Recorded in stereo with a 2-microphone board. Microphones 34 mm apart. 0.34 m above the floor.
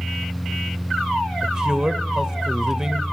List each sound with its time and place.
1.4 s a man speaking: 20° right (ahead or behind), 1.0 m